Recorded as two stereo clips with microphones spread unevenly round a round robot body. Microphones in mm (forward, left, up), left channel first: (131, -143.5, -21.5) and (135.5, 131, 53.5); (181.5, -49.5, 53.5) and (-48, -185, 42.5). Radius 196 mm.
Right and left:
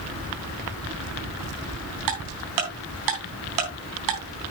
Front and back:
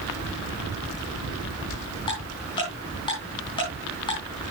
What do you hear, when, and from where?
2.1 s ticking: 110° left, 3.5 m